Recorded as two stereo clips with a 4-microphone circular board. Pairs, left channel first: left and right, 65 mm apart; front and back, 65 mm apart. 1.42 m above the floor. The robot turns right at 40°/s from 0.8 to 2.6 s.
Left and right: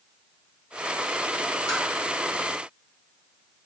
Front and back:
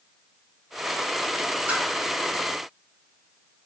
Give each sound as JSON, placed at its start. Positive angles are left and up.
{"t": 1.7, "sound": "tapping", "azimuth_deg": 110, "distance_m": 2.0}